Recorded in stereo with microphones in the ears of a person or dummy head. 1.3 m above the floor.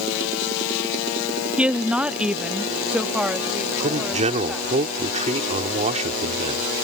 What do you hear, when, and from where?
1.6 s a woman speaking: 5° right (ahead or behind)
3.8 s a man speaking: 30° right (ahead or behind)